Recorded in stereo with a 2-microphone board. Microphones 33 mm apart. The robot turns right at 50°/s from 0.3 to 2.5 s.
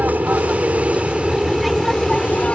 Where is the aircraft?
70° right; by 2.6 s 40° left.